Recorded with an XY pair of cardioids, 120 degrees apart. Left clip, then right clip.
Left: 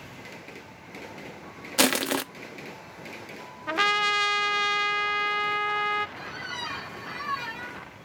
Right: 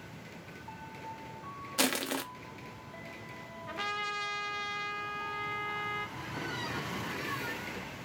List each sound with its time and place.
1.8 s crushing: 40° left, 0.6 m
3.7 s a trumpet: 70° left, 0.5 m
6.2 s a squeak: 70° left, 2 m